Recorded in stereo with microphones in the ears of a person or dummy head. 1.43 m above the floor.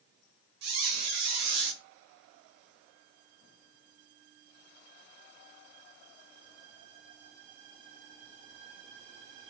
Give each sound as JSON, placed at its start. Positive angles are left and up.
{"t": 0.6, "sound": "a squeak", "side_deg": -55, "distance_m": 0.9}